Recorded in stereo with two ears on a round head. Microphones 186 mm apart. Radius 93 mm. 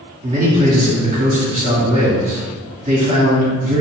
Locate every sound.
0.2 s a man speaking: 35° right (ahead or behind), 1.7 m